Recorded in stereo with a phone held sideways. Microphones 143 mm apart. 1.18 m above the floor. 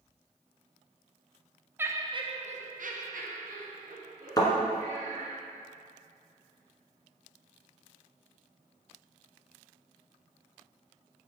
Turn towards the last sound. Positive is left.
turn(degrees=30)  # may be behind; listen again after turning